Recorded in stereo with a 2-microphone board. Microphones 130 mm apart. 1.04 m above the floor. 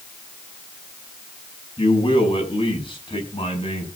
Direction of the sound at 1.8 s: 40° left (ahead or behind).